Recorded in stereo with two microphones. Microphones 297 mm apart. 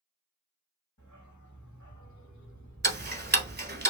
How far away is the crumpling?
I don't hear crumpling.